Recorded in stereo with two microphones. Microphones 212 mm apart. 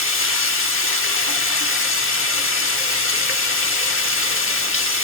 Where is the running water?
80° left, 1.0 m.